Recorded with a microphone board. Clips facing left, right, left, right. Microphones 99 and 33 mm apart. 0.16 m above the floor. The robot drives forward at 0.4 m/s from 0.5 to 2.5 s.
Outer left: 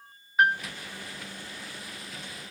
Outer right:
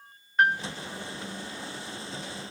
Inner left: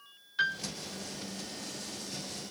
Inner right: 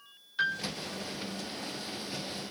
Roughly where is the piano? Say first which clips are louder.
Even, even; centre.